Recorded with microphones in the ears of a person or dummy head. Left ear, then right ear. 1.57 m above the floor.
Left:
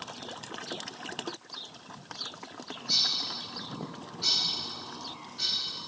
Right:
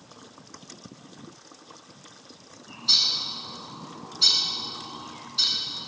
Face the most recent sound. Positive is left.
turn(degrees=-85)